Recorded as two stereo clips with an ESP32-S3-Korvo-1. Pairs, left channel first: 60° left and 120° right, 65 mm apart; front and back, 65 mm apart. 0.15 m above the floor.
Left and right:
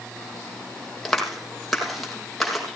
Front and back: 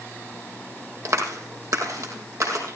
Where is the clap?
145° left, 5 m.